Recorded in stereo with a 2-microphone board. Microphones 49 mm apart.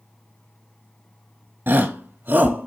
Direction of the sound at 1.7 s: 50° right (ahead or behind).